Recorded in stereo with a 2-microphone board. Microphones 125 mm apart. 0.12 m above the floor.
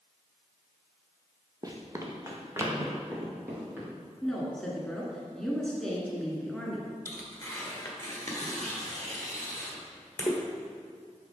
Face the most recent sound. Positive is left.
turn(degrees=25)  # may be behind; listen again after turning